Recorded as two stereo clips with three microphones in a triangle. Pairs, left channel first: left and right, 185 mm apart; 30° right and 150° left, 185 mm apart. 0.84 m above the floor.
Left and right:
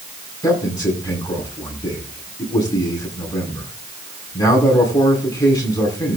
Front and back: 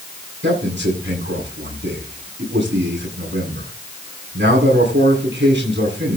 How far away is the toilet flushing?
I don't hear a toilet flushing.